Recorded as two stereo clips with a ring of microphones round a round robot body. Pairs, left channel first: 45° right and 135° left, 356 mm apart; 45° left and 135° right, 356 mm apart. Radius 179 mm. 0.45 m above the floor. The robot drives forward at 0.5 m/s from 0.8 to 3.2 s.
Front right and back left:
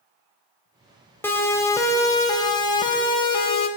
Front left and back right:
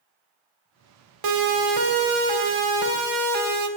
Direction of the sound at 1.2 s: 130° right.